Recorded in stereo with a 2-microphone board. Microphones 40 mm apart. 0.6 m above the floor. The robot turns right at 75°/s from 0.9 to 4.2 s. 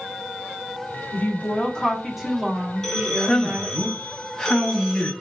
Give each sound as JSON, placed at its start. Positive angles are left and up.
{"t": 1.1, "sound": "a woman speaking", "azimuth_deg": 105, "distance_m": 0.9}
{"t": 2.8, "sound": "a man speaking", "side_deg": 10, "distance_m": 0.5}